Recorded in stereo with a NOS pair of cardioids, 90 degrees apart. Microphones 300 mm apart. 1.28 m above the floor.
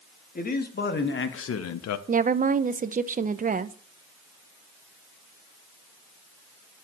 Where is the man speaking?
30° left, 3 m; by 2.0 s 75° left, 1.0 m.